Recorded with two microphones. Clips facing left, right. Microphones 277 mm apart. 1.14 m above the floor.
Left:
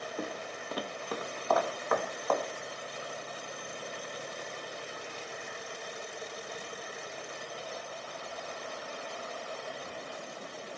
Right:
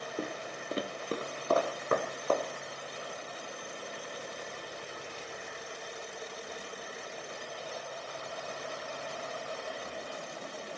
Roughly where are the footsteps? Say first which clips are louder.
Right 2 dB; centre.